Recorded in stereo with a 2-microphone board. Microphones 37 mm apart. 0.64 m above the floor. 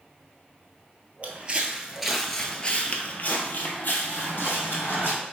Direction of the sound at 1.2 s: 35° right (ahead or behind).